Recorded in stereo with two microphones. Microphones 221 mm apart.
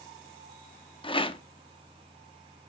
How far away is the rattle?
About 0.6 m.